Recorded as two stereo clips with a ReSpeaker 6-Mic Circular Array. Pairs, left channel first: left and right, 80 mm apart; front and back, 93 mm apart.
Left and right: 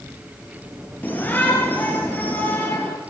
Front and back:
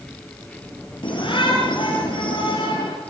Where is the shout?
20° left, 5 m.